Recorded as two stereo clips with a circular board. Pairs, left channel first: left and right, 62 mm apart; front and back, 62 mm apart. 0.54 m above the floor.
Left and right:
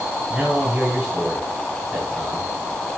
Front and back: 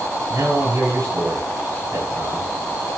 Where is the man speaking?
165° right, 7 m.